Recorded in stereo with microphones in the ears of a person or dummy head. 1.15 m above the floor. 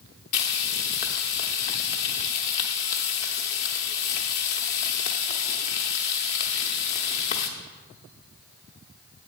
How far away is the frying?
About 0.8 m.